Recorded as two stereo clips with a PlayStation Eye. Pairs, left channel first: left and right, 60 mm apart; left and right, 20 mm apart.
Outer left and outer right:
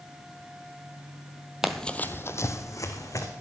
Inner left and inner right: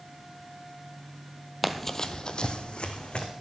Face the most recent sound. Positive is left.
turn(degrees=70)  # may be behind; listen again after turning